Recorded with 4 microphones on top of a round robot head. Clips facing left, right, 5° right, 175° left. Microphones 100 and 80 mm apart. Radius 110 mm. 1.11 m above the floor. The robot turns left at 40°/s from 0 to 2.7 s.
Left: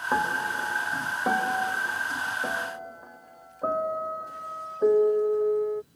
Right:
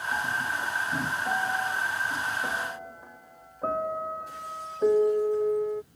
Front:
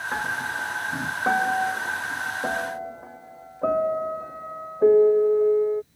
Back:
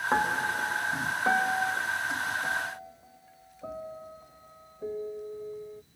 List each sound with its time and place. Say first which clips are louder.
0.1 s a piano: left 5 dB, back 2 dB; 110° left; by 5.8 s 10° left